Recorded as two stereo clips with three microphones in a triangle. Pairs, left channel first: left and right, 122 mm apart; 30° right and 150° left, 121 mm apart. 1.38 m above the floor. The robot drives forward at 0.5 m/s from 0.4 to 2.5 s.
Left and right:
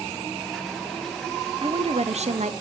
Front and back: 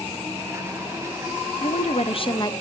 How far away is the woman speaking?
About 0.7 m.